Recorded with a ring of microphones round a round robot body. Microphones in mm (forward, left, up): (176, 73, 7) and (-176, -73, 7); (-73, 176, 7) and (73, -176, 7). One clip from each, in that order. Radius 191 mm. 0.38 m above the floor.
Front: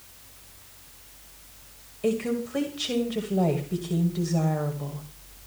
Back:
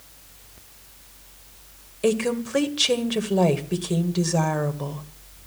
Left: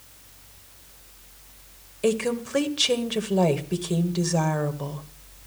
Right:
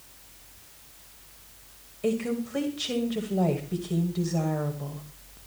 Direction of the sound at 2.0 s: 160° left.